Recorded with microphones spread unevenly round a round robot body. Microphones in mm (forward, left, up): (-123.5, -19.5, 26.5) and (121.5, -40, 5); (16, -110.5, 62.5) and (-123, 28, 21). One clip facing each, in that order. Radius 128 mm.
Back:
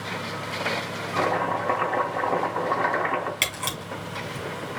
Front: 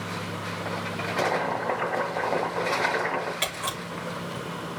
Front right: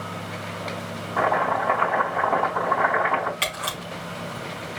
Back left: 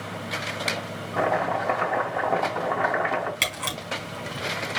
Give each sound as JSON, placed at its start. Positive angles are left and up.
{"t": 1.2, "sound": "chopping", "azimuth_deg": 110, "distance_m": 1.7}
{"t": 3.4, "sound": "a camera shutter", "azimuth_deg": 130, "distance_m": 3.5}